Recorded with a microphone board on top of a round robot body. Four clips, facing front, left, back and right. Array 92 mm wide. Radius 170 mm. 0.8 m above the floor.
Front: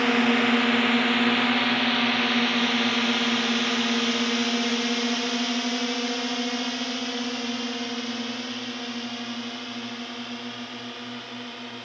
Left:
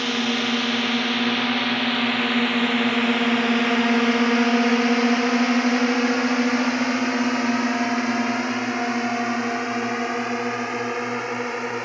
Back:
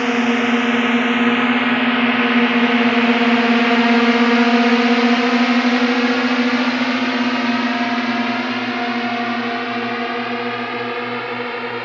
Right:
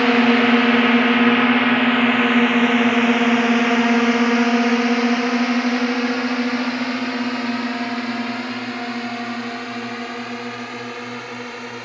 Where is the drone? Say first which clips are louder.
Right 9 dB, back 5 dB; 105° right; by 11.8 s 155° left.